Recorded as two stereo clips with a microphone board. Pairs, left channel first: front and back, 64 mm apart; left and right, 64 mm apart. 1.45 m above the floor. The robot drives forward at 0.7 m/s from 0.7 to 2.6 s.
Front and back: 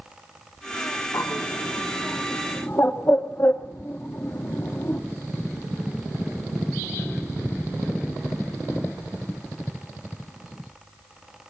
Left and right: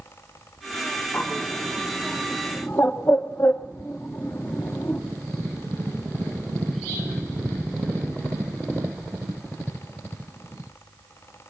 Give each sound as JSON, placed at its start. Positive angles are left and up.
{"t": 1.1, "sound": "a bird", "azimuth_deg": 30, "distance_m": 2.0}